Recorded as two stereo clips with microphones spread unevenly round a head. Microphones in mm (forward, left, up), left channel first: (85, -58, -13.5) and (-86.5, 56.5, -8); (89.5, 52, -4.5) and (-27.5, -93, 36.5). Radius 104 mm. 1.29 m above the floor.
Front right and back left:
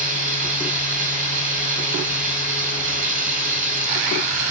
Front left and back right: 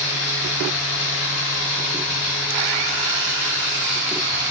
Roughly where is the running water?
Left.